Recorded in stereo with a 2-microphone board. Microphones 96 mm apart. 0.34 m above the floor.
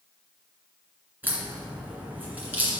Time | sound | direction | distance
1.2 | a crack | 20° right (ahead or behind) | 2 m